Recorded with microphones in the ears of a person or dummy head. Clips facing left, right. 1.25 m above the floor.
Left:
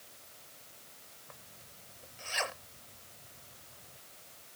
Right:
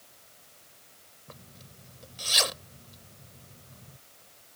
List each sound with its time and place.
1.3 s a zipper: 50° right (ahead or behind)